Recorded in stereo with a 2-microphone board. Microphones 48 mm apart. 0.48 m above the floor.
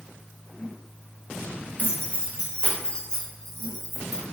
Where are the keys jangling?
35° left (ahead or behind), 1.2 m; by 4.2 s centre (ahead or behind), 1.9 m.